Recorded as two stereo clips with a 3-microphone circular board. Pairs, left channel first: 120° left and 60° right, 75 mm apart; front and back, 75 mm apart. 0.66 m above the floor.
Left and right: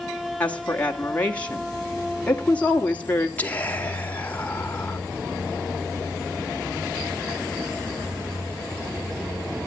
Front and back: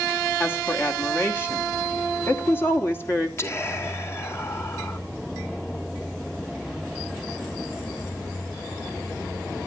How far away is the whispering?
About 2.5 m.